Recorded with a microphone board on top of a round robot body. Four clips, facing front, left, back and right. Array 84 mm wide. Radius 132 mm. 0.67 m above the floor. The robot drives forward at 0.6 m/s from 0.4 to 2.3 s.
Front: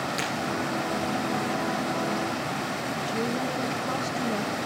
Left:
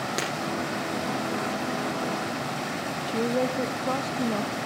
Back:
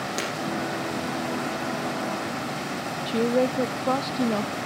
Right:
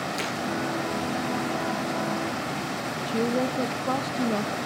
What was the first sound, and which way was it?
Breaking glass, 110° left.